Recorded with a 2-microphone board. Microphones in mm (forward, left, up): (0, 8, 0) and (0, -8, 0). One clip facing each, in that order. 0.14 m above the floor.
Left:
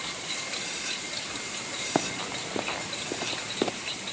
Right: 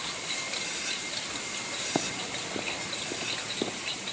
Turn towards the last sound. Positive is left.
turn(degrees=55)  # may be behind; listen again after turning